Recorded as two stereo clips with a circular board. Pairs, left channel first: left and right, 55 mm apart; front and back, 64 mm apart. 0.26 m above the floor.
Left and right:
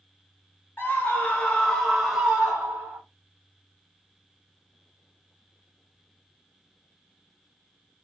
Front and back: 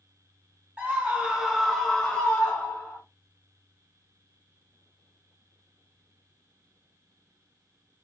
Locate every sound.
0.8 s a scream: 125° left, 1.3 m; by 3.0 s 40° right, 1.3 m